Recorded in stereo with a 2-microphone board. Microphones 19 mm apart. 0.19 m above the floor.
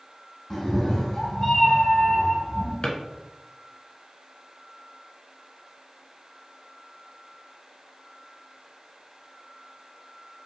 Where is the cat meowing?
25° left (ahead or behind), 0.8 m; by 2.7 s 15° left (ahead or behind), 1.0 m.